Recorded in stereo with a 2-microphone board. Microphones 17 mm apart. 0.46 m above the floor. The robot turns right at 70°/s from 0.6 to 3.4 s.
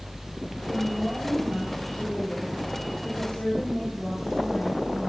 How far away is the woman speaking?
About 8.5 m.